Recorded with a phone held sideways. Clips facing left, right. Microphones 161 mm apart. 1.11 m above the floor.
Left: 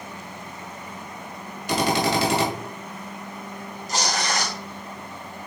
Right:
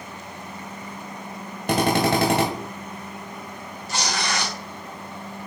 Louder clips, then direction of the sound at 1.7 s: Right 2 dB; 50° right (ahead or behind).